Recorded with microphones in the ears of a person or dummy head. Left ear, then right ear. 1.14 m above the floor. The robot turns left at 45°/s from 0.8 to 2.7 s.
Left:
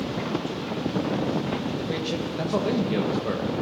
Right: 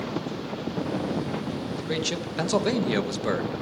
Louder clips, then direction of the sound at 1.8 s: Even; 35° right.